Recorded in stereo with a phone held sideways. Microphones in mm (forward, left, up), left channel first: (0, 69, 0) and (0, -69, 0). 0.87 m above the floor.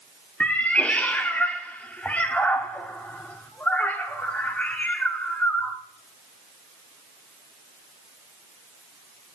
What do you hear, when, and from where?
0.4 s a cat meowing: 10° left (ahead or behind), 0.6 m